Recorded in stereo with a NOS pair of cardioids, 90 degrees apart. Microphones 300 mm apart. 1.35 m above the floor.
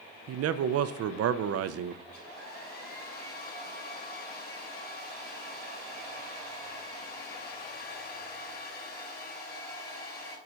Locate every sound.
0.3 s a man speaking: 60° right, 0.7 m
2.0 s a hair dryer: 35° left, 4 m